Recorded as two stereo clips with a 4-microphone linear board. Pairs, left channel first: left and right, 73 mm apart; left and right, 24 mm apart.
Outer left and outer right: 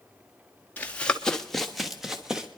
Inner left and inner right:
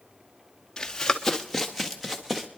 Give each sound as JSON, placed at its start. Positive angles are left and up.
{"t": 0.8, "sound": "running footsteps", "side_deg": 25, "distance_m": 1.1}